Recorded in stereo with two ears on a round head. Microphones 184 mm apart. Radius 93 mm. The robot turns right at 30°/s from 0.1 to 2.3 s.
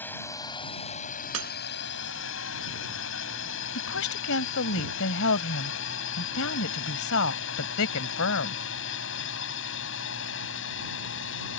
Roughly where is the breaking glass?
Right.